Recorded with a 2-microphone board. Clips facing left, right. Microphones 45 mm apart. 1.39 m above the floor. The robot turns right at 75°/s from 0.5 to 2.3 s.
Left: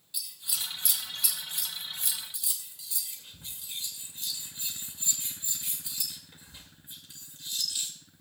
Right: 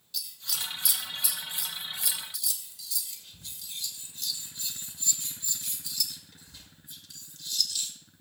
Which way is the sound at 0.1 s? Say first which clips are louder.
Right 2 dB; 15° left (ahead or behind).